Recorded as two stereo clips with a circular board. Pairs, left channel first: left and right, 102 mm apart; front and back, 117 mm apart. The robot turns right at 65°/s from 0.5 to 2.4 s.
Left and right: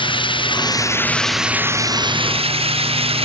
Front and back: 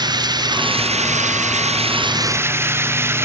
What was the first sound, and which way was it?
Running water, 125° left.